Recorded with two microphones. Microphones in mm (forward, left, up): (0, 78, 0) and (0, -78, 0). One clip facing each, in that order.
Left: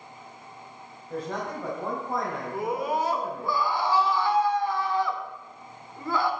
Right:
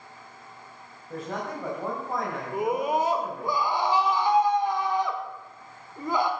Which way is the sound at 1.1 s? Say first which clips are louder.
Left 1 dB; 5° right (ahead or behind).